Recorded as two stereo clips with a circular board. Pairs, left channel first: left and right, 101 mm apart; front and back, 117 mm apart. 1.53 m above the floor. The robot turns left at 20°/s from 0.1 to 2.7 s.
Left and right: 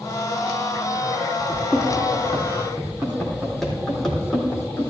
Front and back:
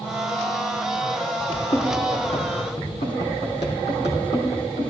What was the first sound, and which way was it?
Running footsteps, 5° left.